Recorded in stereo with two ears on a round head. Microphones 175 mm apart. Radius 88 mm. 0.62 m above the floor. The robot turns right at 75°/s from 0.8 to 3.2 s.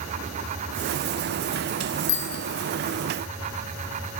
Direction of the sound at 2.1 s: 70° left (ahead or behind).